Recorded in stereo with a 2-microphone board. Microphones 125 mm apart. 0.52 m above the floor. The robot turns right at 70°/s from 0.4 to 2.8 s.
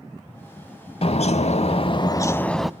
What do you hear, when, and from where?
1.0 s a bird: 65° left, 0.5 m; by 2.7 s 175° right, 0.5 m